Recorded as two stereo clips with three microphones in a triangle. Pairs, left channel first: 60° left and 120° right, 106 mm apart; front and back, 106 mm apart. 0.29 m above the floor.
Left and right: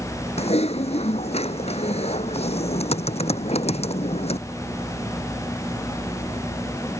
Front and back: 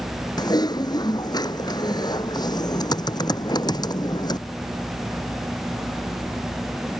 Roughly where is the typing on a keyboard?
Ahead left.